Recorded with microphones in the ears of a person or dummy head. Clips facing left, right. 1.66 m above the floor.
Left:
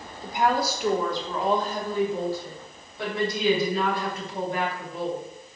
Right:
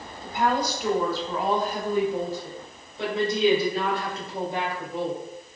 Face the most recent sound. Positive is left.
turn(degrees=-30)  # may be behind; listen again after turning